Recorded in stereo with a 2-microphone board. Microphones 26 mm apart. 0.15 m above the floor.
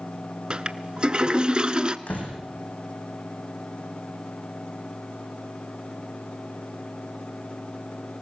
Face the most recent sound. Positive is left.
turn(degrees=80)